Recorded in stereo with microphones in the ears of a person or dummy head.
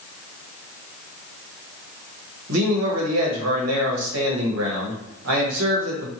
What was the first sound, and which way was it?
A man speaking, 80° right.